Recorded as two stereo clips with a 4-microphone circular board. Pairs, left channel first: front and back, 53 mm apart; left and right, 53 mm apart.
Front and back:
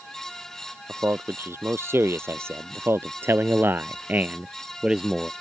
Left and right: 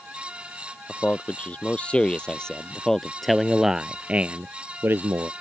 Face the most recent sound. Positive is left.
turn(degrees=-100)